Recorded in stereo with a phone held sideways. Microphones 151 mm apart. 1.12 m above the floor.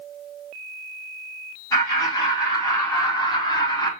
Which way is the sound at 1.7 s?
25° left (ahead or behind).